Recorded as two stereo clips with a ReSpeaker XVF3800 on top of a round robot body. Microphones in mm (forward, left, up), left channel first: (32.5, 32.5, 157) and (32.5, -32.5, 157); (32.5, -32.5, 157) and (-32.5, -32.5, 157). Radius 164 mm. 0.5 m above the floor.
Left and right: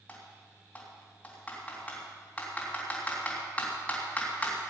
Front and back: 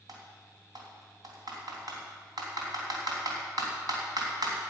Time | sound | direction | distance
0.1 | typing on a keyboard | 160° left | 3 m